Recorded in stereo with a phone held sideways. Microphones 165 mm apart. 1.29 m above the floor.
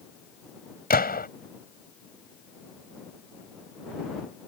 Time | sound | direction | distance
0.9 | a gunshot | 65° left (ahead or behind) | ?